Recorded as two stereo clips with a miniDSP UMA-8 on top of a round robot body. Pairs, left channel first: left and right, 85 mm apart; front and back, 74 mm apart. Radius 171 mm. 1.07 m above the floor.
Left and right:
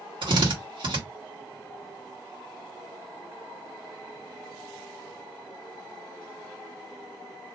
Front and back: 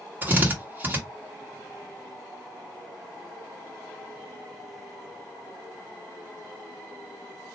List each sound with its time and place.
0.2 s a drill: 115° right, 1.3 m